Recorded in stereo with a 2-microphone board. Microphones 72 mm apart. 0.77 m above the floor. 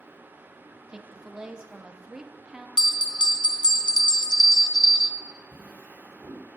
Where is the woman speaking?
10° right (ahead or behind), 0.8 m.